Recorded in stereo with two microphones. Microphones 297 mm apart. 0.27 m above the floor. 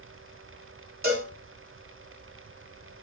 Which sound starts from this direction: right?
A cowbell, at 1.0 s.